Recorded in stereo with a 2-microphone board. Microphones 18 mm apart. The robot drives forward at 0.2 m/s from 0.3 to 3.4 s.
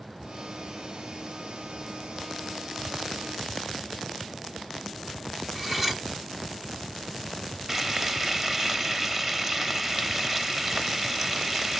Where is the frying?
20° right (ahead or behind), 0.7 m.